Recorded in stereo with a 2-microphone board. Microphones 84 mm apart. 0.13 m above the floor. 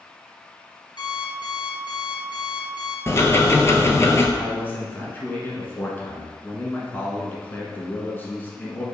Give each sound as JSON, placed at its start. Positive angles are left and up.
{"t": 1.0, "sound": "an alarm clock", "side_deg": 60, "distance_m": 1.2}
{"t": 3.1, "sound": "ticking", "side_deg": 35, "distance_m": 0.6}
{"t": 4.4, "sound": "a man speaking", "side_deg": 25, "distance_m": 1.1}